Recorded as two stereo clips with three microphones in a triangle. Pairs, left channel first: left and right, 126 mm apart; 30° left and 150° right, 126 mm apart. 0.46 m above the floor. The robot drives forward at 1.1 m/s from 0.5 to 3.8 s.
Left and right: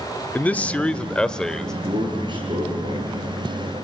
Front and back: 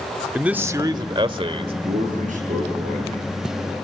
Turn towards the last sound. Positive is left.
turn(degrees=-145)